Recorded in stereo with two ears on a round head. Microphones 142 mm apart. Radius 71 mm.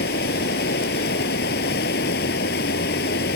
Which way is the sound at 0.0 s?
75° left (ahead or behind).